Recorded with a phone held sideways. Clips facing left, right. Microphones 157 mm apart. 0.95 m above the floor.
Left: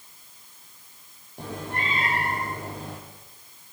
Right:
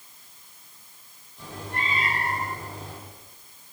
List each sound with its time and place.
1.4 s a cat meowing: 60° left (ahead or behind), 7.5 m